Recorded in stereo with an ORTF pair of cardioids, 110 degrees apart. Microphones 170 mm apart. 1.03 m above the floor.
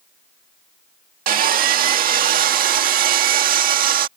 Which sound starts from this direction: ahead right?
Sawing, at 1.3 s.